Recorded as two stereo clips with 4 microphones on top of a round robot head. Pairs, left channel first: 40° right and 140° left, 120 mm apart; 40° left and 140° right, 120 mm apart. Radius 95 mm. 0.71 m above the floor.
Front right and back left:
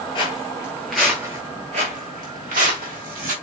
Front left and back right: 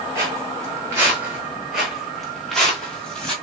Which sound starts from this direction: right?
Footsteps, at 0.1 s.